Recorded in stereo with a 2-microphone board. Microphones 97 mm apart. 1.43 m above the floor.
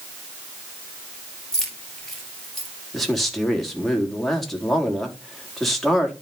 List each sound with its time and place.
1.5 s keys jangling: 5° left (ahead or behind), 3 m; by 2.7 s centre (ahead or behind), 4 m
2.9 s a man speaking: 5° left (ahead or behind), 3.5 m